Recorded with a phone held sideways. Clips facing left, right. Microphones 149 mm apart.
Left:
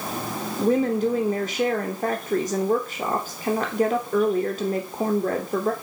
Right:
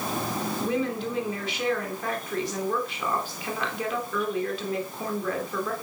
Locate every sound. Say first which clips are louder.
0.6 s a woman speaking: left 9 dB; 45° left (ahead or behind), 3 m